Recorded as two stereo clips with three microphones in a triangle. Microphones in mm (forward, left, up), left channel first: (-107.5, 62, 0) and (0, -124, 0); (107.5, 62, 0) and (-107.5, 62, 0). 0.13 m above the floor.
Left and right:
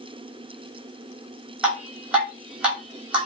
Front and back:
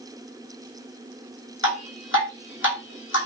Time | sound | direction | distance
1.6 | dripping | 25° left | 2.5 m